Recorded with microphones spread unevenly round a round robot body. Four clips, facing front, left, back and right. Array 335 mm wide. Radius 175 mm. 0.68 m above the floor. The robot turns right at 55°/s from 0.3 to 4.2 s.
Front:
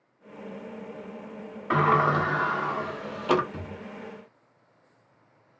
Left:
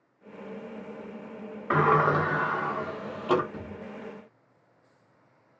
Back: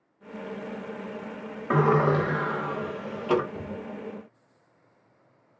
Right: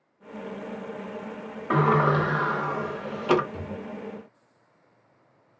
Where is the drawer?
20° right, 3 m; by 3.8 s 5° right, 3 m.